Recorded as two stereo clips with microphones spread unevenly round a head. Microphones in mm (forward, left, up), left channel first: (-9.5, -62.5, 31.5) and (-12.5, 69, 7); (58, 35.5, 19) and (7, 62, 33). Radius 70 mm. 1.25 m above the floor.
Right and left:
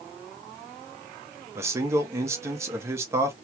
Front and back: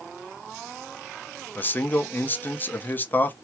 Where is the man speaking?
25° left, 1.0 m.